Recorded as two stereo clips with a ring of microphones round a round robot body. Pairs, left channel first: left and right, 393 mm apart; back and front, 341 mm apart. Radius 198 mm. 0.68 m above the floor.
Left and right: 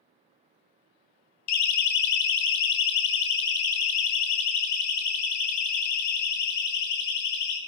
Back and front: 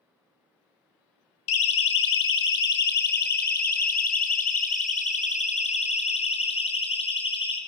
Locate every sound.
1.5 s a siren: 135° left, 2.5 m; by 7.6 s 105° left, 6.5 m